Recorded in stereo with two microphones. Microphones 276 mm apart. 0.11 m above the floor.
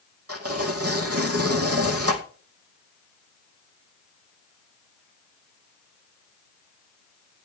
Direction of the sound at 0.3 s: 60° right (ahead or behind).